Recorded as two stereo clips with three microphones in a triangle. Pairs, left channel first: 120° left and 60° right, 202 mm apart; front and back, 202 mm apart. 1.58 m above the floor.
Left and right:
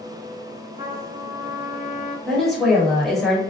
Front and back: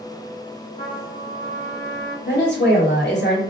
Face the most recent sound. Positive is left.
turn(degrees=30)